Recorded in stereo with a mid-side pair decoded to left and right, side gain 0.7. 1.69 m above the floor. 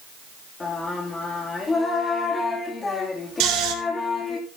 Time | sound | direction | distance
0.6 | singing | 25° left | 3 m
3.4 | snoring | 55° right | 3.5 m